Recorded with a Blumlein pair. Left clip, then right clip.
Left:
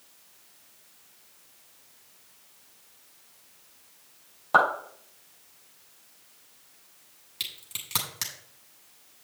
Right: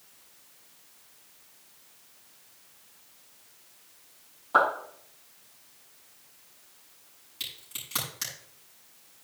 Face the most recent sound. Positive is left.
turn(degrees=25)